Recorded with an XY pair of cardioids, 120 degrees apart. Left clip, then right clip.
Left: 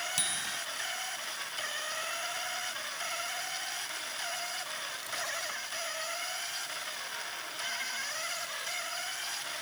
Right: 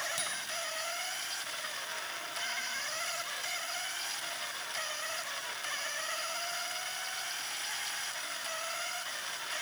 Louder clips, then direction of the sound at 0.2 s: Left 3 dB; 40° left.